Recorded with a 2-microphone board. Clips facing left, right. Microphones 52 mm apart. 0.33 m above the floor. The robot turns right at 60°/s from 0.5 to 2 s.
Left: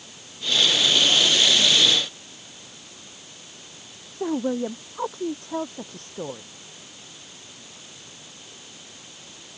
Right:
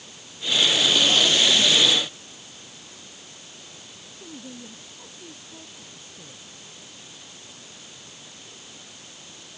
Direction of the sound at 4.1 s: 65° left (ahead or behind).